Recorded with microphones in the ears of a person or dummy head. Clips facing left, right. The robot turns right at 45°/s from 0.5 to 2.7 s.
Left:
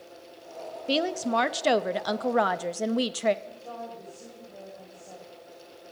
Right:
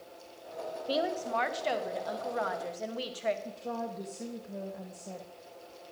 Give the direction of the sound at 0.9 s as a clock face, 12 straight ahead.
11 o'clock.